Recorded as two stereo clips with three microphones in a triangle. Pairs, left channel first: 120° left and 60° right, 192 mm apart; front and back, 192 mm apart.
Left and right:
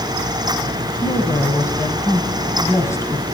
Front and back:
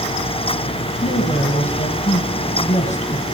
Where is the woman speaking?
45° left, 2.5 m.